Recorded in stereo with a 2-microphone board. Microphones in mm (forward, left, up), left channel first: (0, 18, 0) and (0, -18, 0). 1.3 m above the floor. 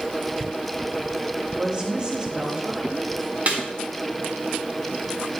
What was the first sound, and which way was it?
A woman speaking, 25° right (ahead or behind).